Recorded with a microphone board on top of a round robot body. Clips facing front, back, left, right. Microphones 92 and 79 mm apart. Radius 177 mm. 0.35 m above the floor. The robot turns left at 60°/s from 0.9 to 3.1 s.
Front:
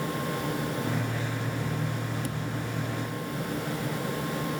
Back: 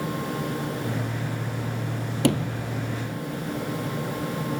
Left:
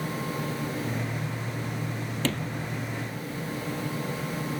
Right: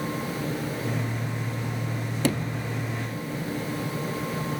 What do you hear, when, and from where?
2.2 s a sliding door: 165° right; by 2.7 s 165° left